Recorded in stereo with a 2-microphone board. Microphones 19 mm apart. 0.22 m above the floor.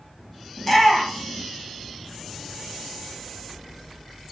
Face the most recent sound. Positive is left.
turn(degrees=15)  # may be behind; listen again after turning